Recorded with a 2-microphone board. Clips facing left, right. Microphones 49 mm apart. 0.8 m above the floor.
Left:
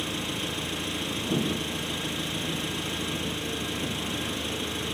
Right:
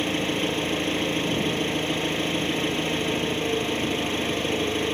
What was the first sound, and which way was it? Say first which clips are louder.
An engine running: right 7 dB; 40° right (ahead or behind).